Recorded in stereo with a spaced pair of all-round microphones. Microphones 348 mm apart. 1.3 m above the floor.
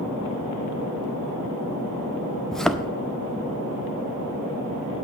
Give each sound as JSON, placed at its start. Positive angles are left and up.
{"t": 2.5, "sound": "a thud", "side_deg": 0, "distance_m": 0.5}